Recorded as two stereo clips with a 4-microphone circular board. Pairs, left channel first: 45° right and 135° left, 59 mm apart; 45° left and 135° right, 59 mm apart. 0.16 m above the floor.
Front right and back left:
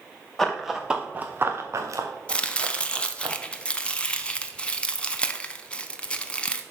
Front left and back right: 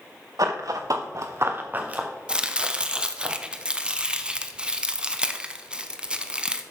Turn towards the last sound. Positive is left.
turn(degrees=-85)